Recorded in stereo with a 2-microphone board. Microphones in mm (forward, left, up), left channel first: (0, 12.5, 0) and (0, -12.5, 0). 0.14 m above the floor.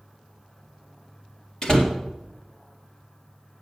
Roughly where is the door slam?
Left.